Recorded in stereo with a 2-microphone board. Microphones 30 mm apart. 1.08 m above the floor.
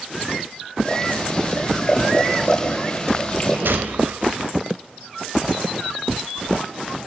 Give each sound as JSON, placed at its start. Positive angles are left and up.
{"t": 0.8, "sound": "boiling", "side_deg": 25, "distance_m": 10.0}
{"t": 3.6, "sound": "a gunshot", "side_deg": -75, "distance_m": 2.5}